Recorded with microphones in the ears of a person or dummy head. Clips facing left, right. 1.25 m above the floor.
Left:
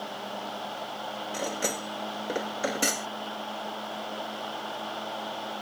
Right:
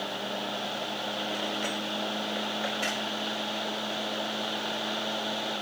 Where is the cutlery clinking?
50° left (ahead or behind).